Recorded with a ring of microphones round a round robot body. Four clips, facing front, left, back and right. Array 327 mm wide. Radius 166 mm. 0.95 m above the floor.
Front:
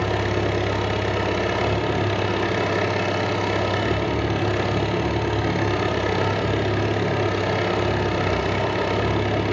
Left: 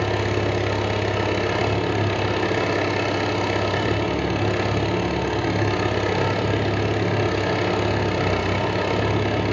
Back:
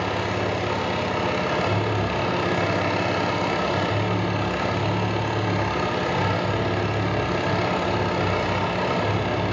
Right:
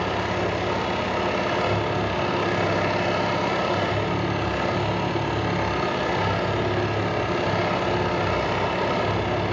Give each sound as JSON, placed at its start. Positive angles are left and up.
{"t": 0.0, "sound": "an engine running", "azimuth_deg": 50, "distance_m": 1.7}